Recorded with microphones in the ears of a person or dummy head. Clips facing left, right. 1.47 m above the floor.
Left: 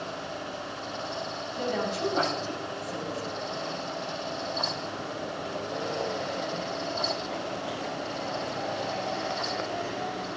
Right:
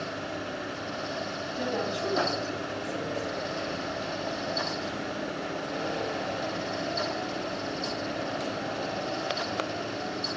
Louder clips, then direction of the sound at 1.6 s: Left 1 dB; 25° left (ahead or behind).